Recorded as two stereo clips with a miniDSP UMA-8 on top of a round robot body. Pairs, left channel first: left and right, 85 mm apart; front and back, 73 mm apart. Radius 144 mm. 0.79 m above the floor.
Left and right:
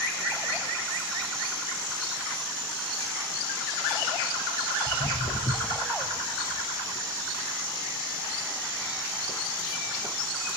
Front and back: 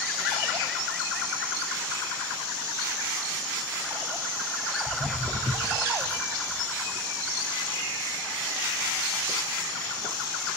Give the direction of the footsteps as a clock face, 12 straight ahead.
8 o'clock.